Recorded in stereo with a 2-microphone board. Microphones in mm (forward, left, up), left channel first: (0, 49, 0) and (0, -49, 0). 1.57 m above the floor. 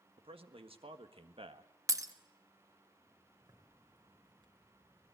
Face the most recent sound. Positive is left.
turn(degrees=-45)  # may be behind; listen again after turning